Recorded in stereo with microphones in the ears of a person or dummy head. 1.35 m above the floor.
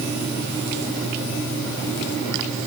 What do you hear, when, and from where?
Only background noise.